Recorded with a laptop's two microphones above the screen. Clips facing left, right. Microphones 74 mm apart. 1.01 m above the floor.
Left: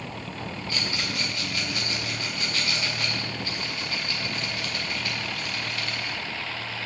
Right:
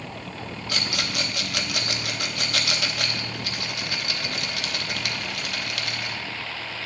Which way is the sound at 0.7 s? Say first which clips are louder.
Right 3 dB; 75° right (ahead or behind).